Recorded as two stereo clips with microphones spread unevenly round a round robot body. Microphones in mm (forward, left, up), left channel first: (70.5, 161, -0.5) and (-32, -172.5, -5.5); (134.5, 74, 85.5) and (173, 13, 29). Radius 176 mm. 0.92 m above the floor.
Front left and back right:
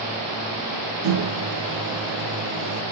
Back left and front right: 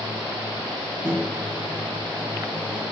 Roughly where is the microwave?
Behind right.